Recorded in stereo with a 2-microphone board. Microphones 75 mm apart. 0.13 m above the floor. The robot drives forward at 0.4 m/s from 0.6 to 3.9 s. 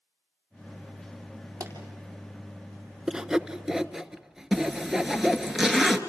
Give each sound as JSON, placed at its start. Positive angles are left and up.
{"t": 1.6, "sound": "a pop", "side_deg": -45, "distance_m": 4.0}
{"t": 3.1, "sound": "sawing", "side_deg": -10, "distance_m": 0.6}
{"t": 4.5, "sound": "a zipper", "side_deg": -5, "distance_m": 1.4}